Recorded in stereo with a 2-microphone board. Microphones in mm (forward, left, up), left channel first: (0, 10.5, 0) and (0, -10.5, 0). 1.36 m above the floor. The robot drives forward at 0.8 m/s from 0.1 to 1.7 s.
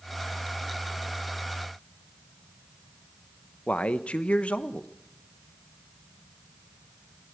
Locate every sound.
3.7 s a man speaking: 75° left (ahead or behind), 0.9 m